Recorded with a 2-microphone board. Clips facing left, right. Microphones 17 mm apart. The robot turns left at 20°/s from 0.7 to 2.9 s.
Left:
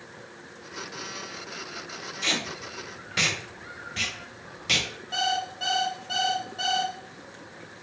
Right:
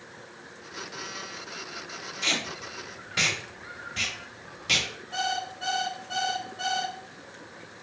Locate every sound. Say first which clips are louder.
2.2 s tape being pulled: even; 5° left (ahead or behind), 0.7 m; by 4.9 s 10° left (ahead or behind), 0.7 m
5.1 s an alarm clock: left 3 dB; 65° left (ahead or behind), 2 m